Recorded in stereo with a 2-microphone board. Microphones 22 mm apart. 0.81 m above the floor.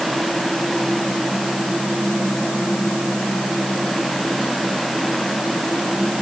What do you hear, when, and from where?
Only background noise.